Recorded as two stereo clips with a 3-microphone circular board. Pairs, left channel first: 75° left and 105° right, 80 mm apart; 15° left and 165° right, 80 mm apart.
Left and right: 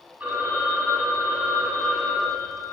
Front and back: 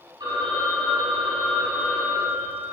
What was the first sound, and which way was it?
A phone ringing, 175° right.